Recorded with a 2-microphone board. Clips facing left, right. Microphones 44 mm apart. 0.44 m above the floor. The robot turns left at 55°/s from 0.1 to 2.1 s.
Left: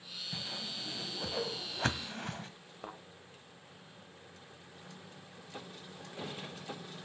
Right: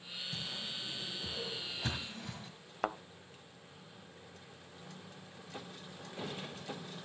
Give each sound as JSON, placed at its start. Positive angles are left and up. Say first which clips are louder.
{"t": 0.3, "sound": "a whoosh", "louder": "left 1 dB", "side_deg": 25, "distance_m": 1.8}
{"t": 2.8, "sound": "a thud", "louder": "right 10 dB", "side_deg": -80, "distance_m": 0.7}